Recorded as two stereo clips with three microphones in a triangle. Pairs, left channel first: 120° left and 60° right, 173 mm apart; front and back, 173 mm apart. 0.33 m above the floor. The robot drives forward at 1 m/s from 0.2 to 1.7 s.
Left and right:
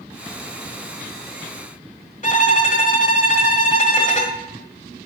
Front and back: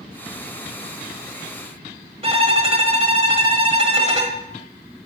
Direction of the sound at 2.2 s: 140° left.